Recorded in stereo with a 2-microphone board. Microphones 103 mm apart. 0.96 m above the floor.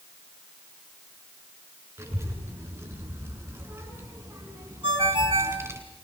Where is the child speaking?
25° right (ahead or behind), 9 m.